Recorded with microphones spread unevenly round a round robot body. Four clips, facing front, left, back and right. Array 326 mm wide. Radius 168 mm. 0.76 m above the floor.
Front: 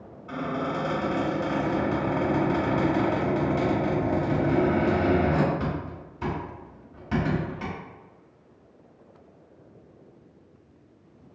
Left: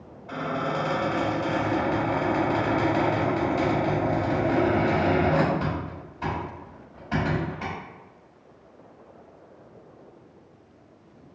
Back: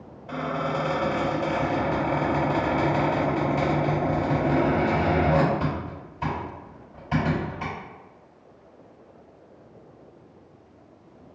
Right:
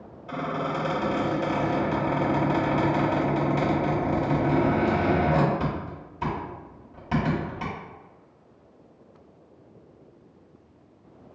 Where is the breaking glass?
I don't hear breaking glass.